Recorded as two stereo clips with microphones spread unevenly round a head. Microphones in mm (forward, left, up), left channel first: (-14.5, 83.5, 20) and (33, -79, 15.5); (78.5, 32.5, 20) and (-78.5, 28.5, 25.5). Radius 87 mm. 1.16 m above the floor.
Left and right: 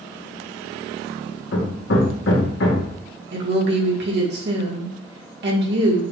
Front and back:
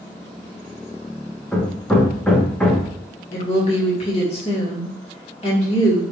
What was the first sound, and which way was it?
Hammering, 85° left.